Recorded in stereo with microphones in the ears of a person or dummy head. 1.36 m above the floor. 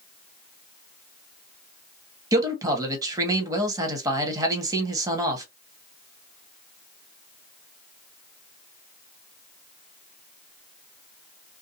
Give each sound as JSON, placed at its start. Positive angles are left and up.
{"t": 2.3, "sound": "a man speaking", "side_deg": -20, "distance_m": 1.2}